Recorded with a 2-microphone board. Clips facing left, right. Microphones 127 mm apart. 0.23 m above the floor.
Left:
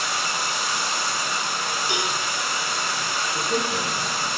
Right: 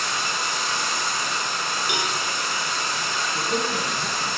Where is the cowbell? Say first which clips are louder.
Even; 20° right (ahead or behind), 0.8 m.